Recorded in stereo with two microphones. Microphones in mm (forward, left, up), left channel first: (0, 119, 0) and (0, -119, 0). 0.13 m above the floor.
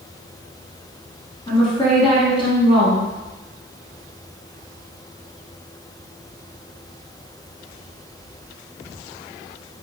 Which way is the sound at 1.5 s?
20° left (ahead or behind).